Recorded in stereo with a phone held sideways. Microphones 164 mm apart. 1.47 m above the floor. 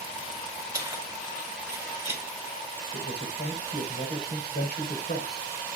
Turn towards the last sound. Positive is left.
turn(degrees=85)